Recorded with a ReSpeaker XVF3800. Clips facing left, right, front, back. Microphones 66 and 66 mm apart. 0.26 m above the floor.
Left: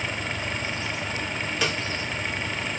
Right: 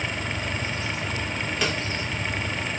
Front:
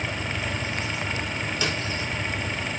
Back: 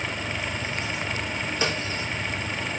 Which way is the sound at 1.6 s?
Straight behind.